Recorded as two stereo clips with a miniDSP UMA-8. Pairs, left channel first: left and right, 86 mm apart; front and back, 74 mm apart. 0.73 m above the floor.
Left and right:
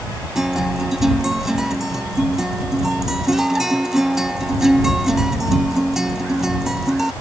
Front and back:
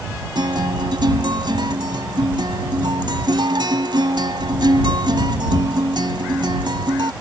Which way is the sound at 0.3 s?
175° right.